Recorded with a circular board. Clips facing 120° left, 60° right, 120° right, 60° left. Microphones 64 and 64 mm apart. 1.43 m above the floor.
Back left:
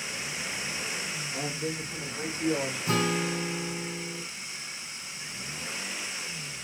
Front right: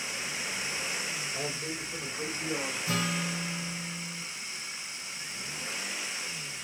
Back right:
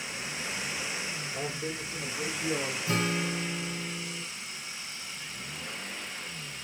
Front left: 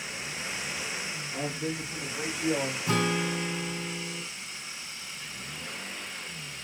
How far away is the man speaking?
About 4 m.